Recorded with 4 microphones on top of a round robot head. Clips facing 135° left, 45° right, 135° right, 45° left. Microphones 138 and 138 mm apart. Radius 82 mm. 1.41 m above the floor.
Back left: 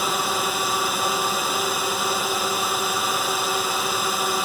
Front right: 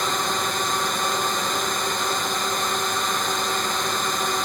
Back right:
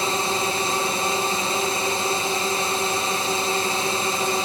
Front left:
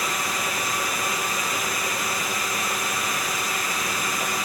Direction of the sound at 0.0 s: 145° right.